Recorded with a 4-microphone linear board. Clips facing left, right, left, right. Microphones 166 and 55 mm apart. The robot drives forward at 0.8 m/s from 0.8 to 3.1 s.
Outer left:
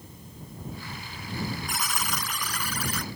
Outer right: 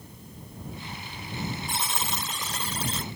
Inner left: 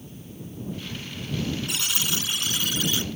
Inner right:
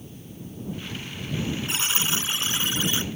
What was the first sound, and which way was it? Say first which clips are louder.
A buzzer: even, inner right 2 dB; 30° right (ahead or behind).